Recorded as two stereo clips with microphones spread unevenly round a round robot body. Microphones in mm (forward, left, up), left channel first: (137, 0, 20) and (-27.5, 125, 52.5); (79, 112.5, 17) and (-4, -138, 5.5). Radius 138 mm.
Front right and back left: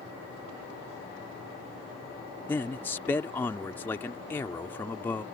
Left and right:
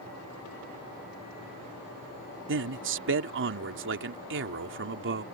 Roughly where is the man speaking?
Right.